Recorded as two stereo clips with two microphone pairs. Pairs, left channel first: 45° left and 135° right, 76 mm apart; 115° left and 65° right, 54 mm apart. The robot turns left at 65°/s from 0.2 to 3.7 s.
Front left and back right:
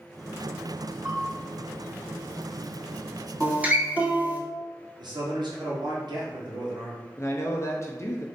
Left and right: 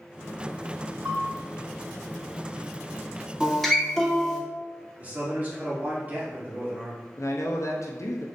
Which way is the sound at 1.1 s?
80° right.